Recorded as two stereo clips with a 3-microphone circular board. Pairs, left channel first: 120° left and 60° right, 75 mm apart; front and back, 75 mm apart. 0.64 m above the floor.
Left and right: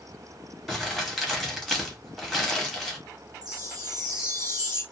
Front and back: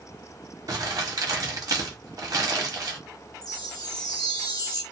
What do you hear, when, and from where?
0.7 s crumpling: 155° right, 0.9 m
3.4 s a chime: 35° right, 0.9 m